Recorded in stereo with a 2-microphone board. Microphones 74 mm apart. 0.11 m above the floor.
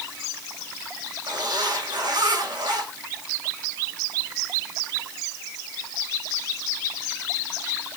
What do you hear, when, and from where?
1.3 s a zipper: 80° right, 8 m